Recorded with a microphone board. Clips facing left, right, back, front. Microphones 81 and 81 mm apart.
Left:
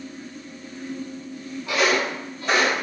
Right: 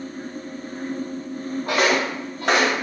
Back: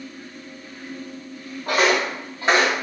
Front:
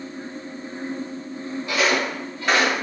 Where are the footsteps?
135° right, 1.2 m; by 2.8 s 105° right, 1.6 m.